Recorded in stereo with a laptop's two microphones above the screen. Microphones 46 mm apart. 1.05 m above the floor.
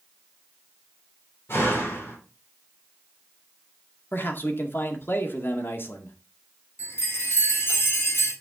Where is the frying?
I don't hear frying.